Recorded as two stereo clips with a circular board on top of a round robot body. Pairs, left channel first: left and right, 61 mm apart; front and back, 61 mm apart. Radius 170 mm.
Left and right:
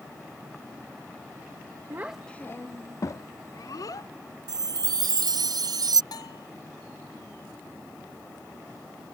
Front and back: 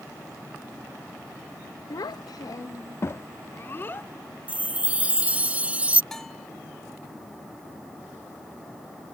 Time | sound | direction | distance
1.9 | a child speaking | 40° right | ?
4.5 | a chime | 110° right | ?
6.1 | a bell | 85° left | ?